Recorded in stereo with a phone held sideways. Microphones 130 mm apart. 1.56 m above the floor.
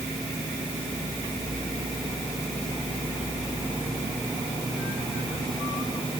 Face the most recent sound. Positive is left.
No sound to turn to.